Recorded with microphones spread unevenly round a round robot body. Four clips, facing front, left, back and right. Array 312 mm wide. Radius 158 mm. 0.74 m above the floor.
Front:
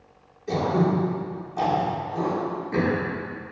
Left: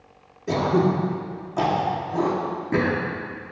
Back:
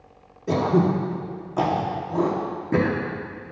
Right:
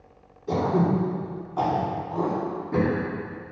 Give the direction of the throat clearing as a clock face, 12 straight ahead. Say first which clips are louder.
Left 2 dB, back 2 dB; 7 o'clock.